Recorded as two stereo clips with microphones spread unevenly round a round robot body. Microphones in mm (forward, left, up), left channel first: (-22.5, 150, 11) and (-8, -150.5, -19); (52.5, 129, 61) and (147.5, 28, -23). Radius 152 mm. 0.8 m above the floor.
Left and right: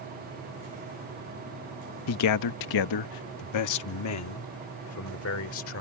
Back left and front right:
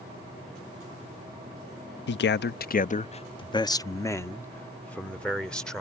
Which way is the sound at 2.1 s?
135° left.